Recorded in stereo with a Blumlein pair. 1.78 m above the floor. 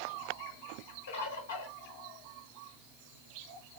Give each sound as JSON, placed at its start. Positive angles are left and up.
{"t": 1.1, "sound": "a bird", "azimuth_deg": 65, "distance_m": 1.5}